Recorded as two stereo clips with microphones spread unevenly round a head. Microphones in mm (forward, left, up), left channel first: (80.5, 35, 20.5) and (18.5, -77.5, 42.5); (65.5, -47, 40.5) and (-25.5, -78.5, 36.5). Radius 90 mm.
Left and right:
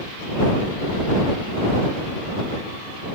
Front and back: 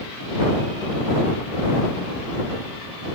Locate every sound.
Only background noise.